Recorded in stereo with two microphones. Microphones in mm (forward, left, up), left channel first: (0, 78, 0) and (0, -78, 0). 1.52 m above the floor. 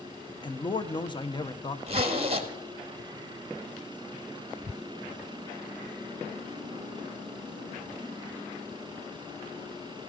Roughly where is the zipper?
Right.